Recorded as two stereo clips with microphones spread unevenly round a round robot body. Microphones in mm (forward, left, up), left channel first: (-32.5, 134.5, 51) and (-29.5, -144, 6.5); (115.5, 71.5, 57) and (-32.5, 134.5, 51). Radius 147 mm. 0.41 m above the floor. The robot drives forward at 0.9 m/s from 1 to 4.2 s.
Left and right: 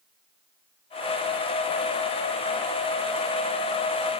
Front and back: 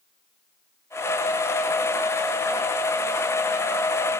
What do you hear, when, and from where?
Only background noise.